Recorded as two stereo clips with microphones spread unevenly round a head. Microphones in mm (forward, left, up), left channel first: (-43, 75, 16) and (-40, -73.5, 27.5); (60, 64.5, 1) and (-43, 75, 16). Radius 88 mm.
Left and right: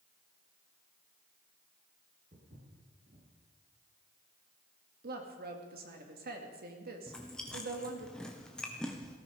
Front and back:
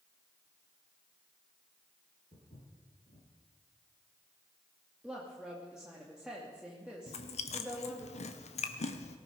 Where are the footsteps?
45° right, 7 m.